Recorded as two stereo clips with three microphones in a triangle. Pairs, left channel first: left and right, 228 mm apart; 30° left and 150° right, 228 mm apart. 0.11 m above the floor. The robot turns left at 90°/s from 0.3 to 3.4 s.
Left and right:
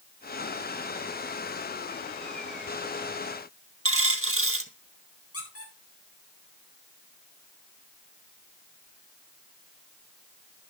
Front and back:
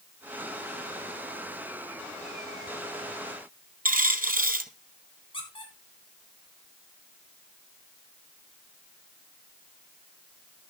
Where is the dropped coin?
100° right, 1.1 m.